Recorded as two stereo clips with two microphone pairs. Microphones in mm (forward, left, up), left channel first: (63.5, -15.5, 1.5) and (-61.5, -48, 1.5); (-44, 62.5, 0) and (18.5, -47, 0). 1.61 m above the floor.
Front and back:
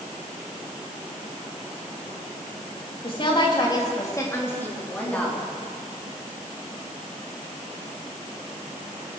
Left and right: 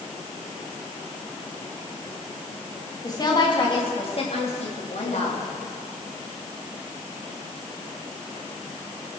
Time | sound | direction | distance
3.0 | a woman speaking | 60° left | 3 m